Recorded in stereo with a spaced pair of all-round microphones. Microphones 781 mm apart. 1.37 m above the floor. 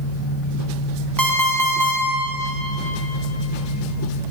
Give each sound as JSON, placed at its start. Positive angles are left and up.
{"t": 1.2, "sound": "an alarm clock", "side_deg": -25, "distance_m": 0.8}